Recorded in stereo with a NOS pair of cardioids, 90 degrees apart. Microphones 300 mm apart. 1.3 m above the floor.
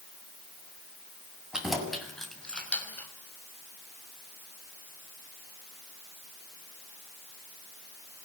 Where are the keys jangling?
Straight ahead, 7.5 m; by 3.1 s 5° left, 5.5 m.